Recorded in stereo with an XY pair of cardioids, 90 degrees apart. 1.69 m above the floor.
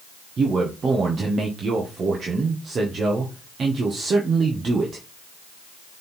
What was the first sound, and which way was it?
A man speaking, 55° right.